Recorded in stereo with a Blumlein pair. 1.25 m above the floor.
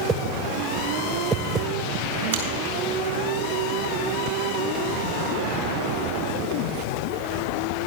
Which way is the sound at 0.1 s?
15° right.